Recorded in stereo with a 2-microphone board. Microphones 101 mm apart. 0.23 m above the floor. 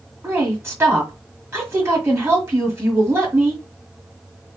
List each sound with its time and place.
0.2 s a woman speaking: 25° right (ahead or behind), 1.5 m